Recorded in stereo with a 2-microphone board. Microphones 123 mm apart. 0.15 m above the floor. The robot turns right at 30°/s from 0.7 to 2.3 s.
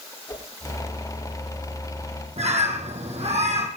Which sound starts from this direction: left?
A whoosh, at 0.3 s.